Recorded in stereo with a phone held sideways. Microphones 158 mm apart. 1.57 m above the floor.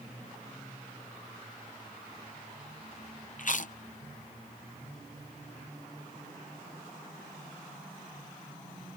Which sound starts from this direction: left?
Chewing, at 3.4 s.